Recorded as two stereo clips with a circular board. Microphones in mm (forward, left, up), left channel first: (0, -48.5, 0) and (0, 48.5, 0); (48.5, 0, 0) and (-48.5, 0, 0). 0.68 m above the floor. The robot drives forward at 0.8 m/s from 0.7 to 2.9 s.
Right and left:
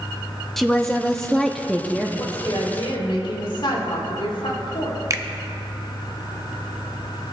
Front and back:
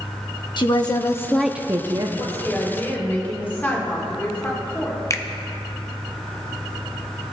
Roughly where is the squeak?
No squeak in this recording.